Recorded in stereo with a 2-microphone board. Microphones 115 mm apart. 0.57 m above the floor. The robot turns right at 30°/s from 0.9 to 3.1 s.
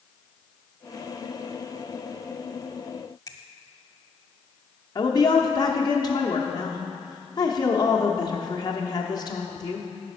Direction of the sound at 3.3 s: 30° left (ahead or behind).